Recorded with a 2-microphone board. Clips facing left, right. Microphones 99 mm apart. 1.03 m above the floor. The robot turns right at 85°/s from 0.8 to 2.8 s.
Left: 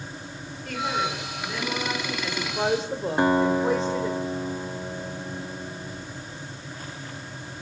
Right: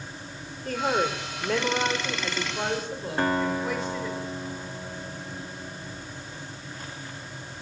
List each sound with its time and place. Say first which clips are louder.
0.7 s a woman speaking: right 2 dB; 140° right, 4.5 m; by 4.2 s 30° left, 4.5 m
3.2 s a guitar: left 5 dB; 20° left (ahead or behind), 1.3 m